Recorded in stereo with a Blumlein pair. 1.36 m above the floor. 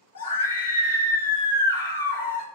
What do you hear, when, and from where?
0.1 s a scream: 70° left, 0.9 m